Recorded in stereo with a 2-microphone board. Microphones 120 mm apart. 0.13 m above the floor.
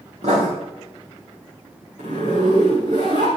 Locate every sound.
0.2 s writing: 65° right (ahead or behind), 6 m
2.0 s a zipper: 80° right, 6.5 m